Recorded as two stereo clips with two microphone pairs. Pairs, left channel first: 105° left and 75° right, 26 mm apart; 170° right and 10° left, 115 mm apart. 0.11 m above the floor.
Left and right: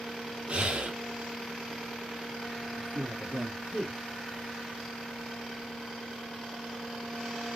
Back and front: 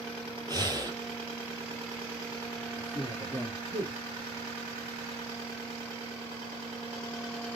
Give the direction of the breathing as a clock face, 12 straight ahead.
1 o'clock.